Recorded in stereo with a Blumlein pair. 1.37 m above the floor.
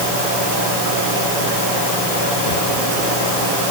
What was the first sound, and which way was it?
Only background noise.